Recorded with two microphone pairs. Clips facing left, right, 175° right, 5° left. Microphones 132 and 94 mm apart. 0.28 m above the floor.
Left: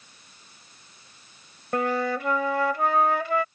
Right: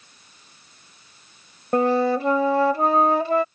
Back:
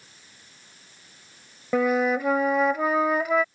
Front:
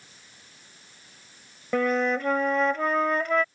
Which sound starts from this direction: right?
A flute, at 1.7 s.